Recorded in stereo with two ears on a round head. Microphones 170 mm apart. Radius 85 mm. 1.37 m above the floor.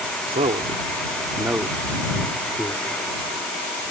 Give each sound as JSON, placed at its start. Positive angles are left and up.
{"t": 0.3, "sound": "a man speaking", "side_deg": -35}